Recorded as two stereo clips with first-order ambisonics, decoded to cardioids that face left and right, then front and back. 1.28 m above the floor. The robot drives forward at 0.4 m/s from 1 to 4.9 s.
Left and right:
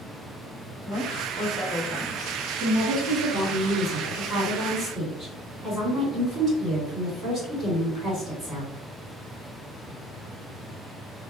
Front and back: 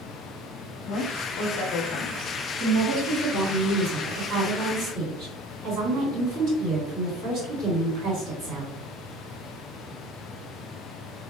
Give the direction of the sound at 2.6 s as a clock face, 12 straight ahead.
5 o'clock.